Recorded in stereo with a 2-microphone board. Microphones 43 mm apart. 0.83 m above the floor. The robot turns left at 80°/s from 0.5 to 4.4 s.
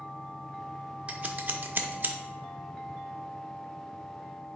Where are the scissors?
30° right (ahead or behind), 0.6 m; by 2.1 s 40° right (ahead or behind), 0.6 m.